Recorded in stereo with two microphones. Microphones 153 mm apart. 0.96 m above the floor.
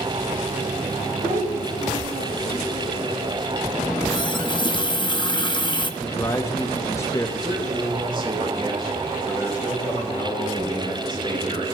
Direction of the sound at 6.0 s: 20° left (ahead or behind).